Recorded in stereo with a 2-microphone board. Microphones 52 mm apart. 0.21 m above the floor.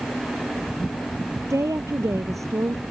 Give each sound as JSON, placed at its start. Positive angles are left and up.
{"t": 1.5, "sound": "a woman speaking", "side_deg": -70}